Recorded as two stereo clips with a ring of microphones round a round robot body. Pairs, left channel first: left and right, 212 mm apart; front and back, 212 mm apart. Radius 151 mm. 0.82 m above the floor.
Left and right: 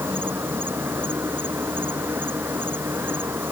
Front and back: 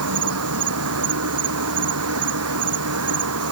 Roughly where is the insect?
Behind.